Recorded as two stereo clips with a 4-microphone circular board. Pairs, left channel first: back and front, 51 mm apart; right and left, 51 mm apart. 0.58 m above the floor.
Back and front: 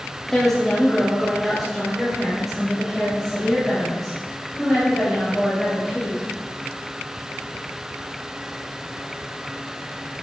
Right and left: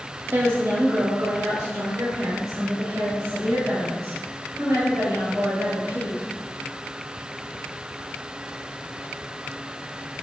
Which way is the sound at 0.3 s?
100° left.